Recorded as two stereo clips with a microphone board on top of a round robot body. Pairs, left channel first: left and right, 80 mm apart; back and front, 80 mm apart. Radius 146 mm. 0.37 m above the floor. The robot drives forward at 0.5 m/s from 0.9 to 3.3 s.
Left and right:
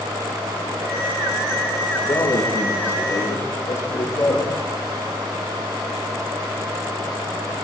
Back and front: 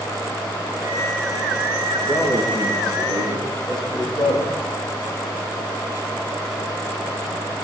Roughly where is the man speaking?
Behind left.